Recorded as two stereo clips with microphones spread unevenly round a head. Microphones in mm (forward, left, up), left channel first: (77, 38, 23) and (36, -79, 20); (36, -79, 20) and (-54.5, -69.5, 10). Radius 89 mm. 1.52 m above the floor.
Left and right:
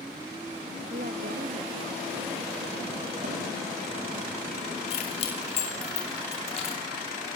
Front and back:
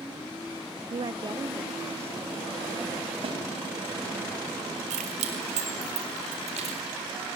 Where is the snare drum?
165° right, 7.5 m.